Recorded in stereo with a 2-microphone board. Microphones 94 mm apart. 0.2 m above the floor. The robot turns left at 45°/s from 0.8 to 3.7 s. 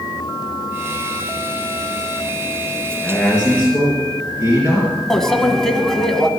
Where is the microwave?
5° left (ahead or behind), 1.1 m.